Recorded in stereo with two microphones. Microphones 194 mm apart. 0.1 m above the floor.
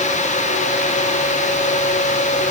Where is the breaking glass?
No breaking glass in this recording.